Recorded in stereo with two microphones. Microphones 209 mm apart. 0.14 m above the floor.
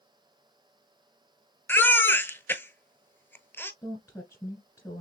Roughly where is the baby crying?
Centre.